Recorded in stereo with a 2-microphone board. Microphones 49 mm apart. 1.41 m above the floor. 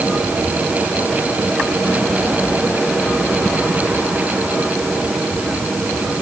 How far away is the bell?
I don't hear a bell.